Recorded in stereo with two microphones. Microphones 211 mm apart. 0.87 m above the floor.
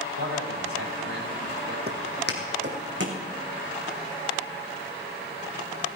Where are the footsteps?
50° right (ahead or behind), 1.9 m; by 3.2 s 65° right (ahead or behind), 2.5 m.